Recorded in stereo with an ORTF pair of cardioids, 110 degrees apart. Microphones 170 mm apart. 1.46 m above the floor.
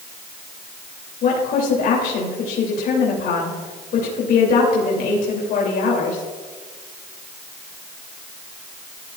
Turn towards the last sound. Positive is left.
turn(degrees=65)